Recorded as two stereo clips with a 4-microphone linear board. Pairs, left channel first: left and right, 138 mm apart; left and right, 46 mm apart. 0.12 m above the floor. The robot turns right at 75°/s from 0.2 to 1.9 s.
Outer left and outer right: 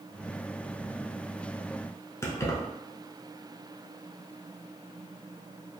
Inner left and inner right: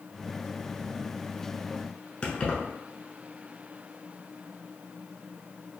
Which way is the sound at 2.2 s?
20° left (ahead or behind).